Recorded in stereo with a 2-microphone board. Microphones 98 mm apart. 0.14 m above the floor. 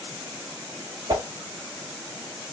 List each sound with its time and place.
1.1 s a whoosh: 45° right (ahead or behind), 0.8 m